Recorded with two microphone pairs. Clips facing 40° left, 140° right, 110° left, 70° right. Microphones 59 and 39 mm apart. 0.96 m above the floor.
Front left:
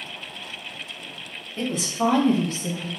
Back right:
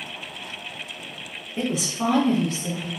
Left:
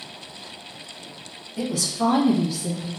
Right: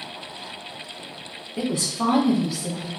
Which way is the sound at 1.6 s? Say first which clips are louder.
Front left 1 dB, even; 75° right.